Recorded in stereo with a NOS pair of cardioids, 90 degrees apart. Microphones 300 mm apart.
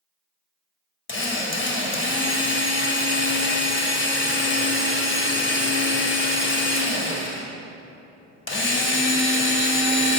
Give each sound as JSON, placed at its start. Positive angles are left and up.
{"t": 1.1, "sound": "a drill", "azimuth_deg": 40, "distance_m": 1.1}